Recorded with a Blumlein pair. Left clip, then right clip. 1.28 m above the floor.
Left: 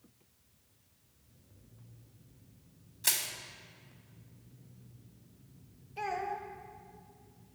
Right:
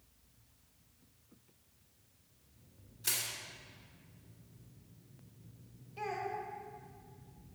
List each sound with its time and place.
3.0 s crushing: 30° left, 1.2 m
6.0 s a child speaking: 20° left, 1.2 m